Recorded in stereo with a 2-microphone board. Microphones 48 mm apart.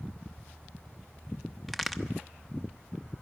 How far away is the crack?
About 1.0 m.